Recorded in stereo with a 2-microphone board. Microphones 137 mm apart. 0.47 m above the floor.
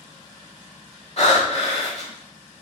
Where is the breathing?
50° left (ahead or behind), 1.1 m.